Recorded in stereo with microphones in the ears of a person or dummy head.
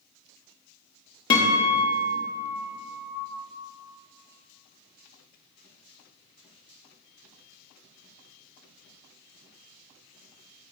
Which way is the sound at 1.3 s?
20° left (ahead or behind).